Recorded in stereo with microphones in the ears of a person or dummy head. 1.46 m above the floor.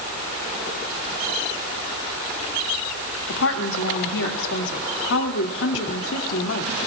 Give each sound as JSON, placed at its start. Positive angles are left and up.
{"t": 3.3, "sound": "a woman speaking", "side_deg": 75, "distance_m": 2.0}